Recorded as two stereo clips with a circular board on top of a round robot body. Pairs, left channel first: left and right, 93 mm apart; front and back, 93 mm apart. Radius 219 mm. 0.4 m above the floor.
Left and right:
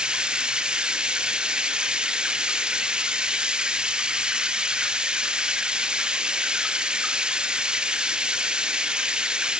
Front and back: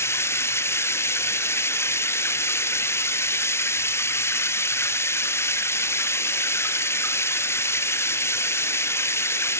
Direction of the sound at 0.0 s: 20° right.